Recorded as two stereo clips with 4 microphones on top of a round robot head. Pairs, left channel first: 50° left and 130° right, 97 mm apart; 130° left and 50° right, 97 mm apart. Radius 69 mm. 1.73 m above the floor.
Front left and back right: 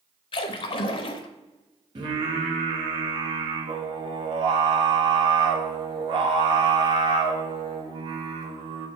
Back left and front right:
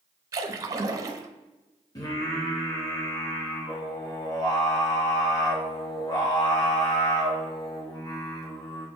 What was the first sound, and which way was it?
A splash, 15° left.